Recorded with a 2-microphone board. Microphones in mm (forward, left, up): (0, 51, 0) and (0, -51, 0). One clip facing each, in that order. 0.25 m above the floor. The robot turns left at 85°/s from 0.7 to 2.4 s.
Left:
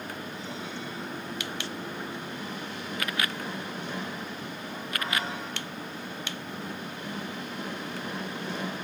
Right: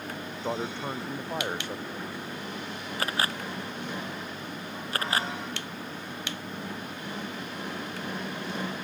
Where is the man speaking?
50° right; by 2.1 s 175° right.